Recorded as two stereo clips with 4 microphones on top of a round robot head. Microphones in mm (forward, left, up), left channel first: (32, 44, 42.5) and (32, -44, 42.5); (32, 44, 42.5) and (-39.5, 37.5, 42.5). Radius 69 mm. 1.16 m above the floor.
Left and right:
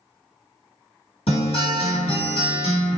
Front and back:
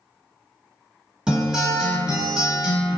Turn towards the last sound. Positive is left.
turn(degrees=105)